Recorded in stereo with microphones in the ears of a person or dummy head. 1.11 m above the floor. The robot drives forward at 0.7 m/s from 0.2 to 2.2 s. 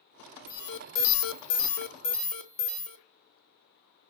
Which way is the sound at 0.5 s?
50° left (ahead or behind).